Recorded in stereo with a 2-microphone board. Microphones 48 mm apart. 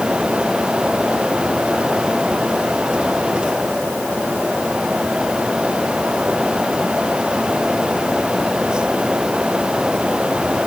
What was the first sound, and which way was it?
Only background noise.